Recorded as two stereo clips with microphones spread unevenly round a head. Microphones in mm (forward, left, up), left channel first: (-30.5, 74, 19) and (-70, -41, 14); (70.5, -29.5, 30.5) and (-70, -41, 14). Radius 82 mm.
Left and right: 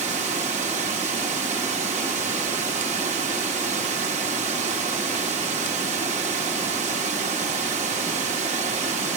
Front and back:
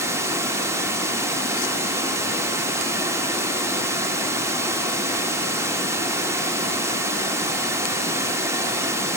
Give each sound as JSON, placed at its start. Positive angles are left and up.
{"t": 0.0, "sound": "running water", "azimuth_deg": -105, "distance_m": 1.3}